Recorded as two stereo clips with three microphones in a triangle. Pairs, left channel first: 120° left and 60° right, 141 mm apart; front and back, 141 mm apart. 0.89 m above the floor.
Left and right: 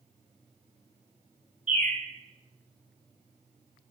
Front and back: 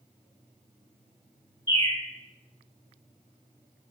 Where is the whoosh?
I don't hear a whoosh.